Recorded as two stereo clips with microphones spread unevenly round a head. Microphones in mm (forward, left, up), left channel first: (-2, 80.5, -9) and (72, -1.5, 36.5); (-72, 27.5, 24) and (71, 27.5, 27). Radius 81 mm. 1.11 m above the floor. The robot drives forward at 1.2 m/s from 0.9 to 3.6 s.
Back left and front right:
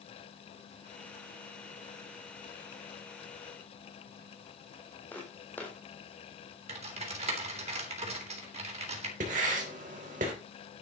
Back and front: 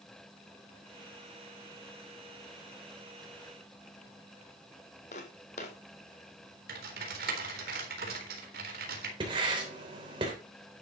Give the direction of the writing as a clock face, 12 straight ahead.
2 o'clock.